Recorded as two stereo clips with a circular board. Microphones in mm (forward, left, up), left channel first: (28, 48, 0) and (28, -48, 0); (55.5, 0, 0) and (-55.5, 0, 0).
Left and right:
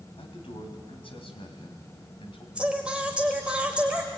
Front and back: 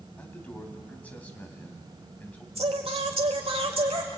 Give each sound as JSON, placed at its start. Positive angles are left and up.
{"t": 0.2, "sound": "a man speaking", "azimuth_deg": 75, "distance_m": 2.5}
{"t": 2.5, "sound": "singing", "azimuth_deg": -165, "distance_m": 2.0}